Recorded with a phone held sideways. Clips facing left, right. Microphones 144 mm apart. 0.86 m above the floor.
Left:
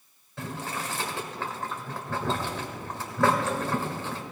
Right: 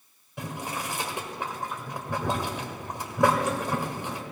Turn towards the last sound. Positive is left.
turn(degrees=-15)  # may be behind; listen again after turning